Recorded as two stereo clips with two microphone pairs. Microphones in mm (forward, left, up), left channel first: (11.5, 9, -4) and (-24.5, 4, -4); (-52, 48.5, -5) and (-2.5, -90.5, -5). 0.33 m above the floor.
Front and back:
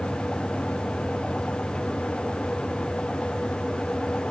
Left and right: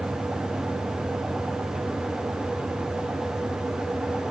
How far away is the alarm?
No alarm in this recording.